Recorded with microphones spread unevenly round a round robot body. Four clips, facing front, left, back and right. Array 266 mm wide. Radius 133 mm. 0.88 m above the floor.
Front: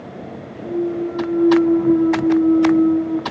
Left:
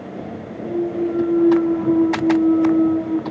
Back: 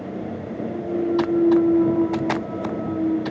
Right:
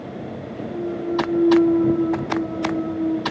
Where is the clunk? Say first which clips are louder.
Left 5 dB, front 3 dB; 50° left, 9.5 m.